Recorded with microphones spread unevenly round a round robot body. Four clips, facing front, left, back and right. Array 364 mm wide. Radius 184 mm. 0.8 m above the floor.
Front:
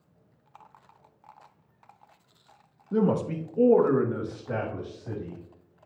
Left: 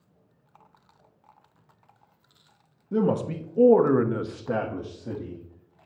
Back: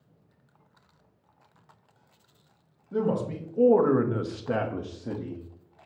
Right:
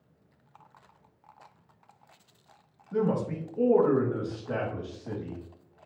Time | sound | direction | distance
2.9 | a man speaking | 55° left | 1.2 m